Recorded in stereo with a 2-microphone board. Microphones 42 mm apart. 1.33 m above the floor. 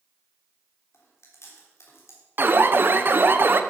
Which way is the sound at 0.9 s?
80° left.